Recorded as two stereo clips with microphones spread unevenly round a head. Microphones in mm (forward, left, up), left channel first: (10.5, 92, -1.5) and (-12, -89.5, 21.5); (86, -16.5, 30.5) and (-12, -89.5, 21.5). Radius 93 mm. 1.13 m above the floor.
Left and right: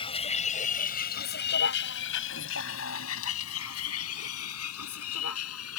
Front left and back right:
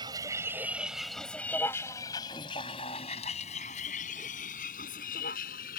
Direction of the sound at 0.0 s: 145° left.